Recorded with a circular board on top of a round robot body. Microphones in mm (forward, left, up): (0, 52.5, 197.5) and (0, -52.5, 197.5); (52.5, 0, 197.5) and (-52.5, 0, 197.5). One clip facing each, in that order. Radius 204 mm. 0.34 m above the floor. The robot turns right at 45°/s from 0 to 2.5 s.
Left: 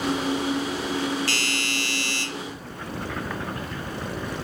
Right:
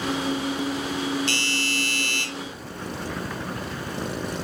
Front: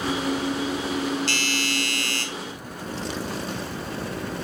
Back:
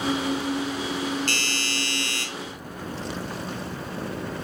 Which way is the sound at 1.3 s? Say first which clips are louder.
Right 1 dB, front 3 dB; 150° right.